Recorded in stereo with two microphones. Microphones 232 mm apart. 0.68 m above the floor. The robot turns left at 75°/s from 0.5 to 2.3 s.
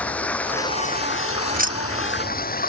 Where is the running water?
175° left; by 2.7 s 40° left.